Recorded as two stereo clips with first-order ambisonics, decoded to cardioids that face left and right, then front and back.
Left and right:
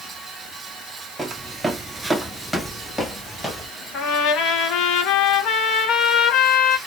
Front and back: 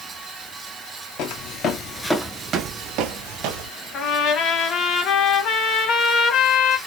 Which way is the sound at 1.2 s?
10° right.